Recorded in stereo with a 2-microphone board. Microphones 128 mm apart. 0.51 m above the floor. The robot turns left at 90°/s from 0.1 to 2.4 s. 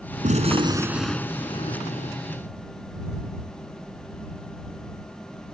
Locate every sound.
0.2 s a gunshot: 105° right; by 2.1 s 85° left